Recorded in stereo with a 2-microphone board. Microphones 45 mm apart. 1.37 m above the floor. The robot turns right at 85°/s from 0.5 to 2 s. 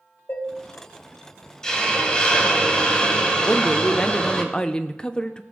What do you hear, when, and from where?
0.3 s dishes clattering: 45° left (ahead or behind), 1.0 m; by 0.5 s 50° left (ahead or behind), 1.0 m
1.6 s a hiss: 15° left (ahead or behind), 1.2 m; by 4.4 s 20° left (ahead or behind), 1.2 m
3.4 s a woman speaking: 20° left (ahead or behind), 0.6 m